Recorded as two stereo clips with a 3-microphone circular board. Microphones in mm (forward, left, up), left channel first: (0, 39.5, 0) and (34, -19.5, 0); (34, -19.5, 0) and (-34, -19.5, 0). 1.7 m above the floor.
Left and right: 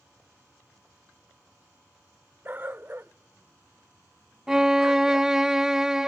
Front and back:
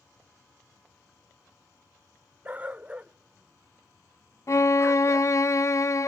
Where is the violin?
20° left.